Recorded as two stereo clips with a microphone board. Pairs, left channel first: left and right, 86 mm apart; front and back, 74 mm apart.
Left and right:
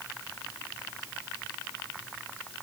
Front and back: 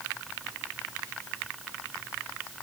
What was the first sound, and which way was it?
Only background noise.